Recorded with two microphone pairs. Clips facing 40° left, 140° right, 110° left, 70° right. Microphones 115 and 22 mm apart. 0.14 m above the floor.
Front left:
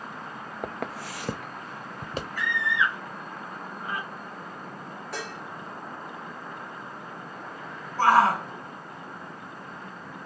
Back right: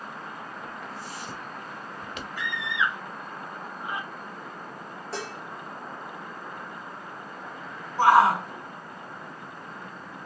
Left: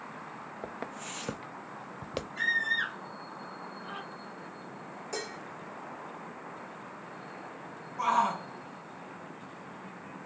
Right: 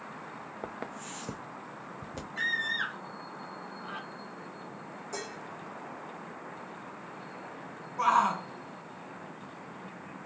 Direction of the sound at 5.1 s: 165° left.